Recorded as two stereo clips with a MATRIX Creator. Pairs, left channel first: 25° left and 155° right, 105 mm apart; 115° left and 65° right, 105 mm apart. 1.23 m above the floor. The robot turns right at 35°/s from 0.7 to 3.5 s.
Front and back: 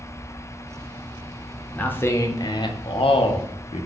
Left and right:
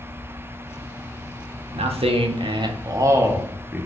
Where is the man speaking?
55° right, 0.5 m; by 3.9 s 10° left, 0.5 m.